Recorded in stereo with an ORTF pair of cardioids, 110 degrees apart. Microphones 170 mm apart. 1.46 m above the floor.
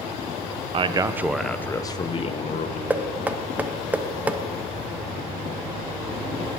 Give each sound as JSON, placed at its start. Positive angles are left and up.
{"t": 0.7, "sound": "a man speaking", "azimuth_deg": -30, "distance_m": 0.8}
{"t": 2.9, "sound": "knocking", "azimuth_deg": -10, "distance_m": 0.7}